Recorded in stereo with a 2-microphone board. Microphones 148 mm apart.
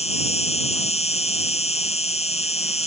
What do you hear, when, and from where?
0.0 s an insect: 45° left (ahead or behind)